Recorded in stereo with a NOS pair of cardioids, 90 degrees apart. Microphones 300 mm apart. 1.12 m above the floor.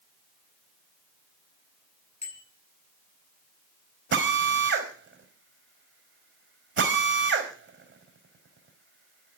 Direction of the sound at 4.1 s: 40° right.